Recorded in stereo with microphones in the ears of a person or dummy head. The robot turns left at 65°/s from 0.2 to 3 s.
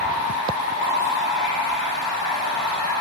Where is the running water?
80° right, 1.3 m; by 3.0 s 100° left, 1.3 m.